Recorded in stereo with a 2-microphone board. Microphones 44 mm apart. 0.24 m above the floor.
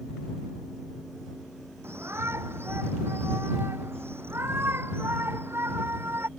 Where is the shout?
75° right (ahead or behind); by 6.3 s 65° right (ahead or behind).